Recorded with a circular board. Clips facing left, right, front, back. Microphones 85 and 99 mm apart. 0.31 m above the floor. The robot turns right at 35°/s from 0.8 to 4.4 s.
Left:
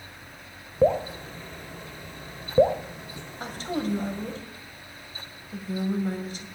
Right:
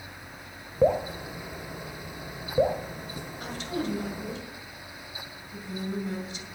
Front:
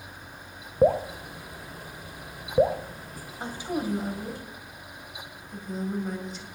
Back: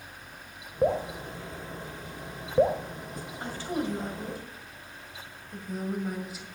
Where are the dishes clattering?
No dishes clattering in this recording.